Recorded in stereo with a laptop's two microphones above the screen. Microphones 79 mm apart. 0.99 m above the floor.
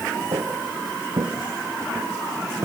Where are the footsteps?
65° right (ahead or behind), 2.5 m; by 2.6 s 40° right (ahead or behind), 2.5 m.